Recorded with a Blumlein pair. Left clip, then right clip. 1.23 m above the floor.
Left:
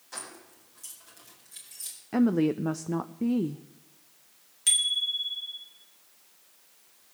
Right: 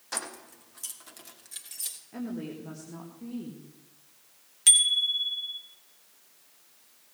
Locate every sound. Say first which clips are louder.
0.1 s keys jangling: right 6 dB; 30° right, 1.6 m; by 2.0 s 25° right, 2.5 m
2.1 s a woman speaking: left 16 dB; 35° left, 0.6 m
4.7 s a bicycle bell: right 3 dB; 20° right, 2.5 m